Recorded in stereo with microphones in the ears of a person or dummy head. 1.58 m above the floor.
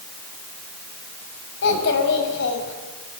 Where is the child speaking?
65° left (ahead or behind), 5.5 m.